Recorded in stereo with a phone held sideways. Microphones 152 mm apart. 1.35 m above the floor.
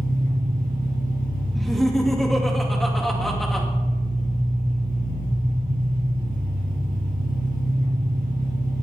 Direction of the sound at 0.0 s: 80° right.